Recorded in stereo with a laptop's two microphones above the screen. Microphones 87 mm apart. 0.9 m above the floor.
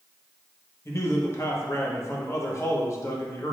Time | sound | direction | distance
0.8 | a man speaking | 30° left (ahead or behind) | 0.9 m